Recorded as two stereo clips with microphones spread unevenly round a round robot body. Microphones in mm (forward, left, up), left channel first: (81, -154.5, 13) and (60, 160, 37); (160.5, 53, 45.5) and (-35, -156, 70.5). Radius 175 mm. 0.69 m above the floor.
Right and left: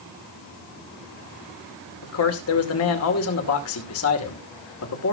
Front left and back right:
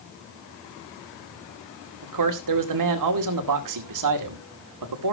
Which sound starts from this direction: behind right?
A man speaking, at 2.0 s.